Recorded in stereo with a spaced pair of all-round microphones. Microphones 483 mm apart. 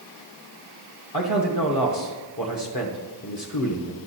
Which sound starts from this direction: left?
A man speaking, at 1.1 s.